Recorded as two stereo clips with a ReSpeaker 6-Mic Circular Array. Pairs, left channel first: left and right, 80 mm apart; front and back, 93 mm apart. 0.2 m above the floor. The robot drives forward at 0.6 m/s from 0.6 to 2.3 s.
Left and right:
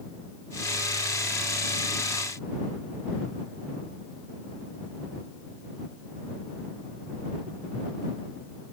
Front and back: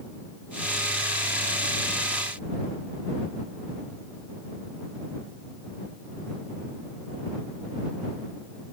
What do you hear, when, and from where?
Only background noise.